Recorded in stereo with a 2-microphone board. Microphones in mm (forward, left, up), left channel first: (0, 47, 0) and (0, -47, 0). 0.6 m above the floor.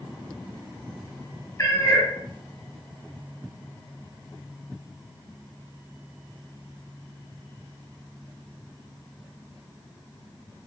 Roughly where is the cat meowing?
Left.